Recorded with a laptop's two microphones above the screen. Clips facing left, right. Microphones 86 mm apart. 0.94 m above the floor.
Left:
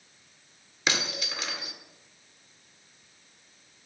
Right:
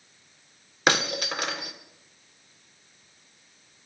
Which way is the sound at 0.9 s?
55° right (ahead or behind).